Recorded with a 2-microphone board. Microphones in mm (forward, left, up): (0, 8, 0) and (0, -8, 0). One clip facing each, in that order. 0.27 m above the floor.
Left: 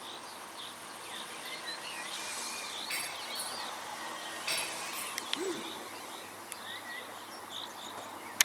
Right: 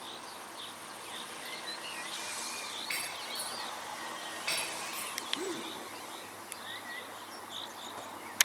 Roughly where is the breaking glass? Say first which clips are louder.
Right 1 dB; right.